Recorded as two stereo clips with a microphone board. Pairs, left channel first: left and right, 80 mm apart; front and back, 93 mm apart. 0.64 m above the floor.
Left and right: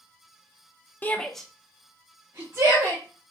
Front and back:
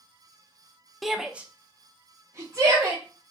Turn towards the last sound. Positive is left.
turn(degrees=-130)